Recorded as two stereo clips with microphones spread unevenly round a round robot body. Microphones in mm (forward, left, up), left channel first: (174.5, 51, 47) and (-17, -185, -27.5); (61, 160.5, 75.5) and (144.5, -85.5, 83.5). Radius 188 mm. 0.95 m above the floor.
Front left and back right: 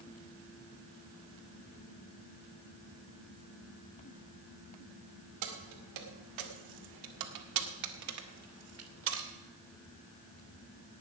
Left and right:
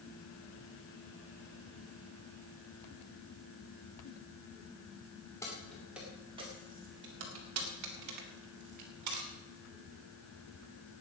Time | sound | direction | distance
5.4 | keys jangling | 170° right | 2 m